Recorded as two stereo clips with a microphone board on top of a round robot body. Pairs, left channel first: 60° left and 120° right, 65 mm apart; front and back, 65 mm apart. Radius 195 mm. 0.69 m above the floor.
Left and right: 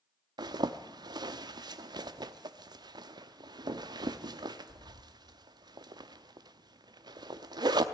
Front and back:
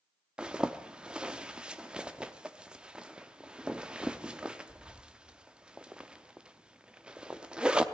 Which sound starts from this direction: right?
A zipper, at 0.4 s.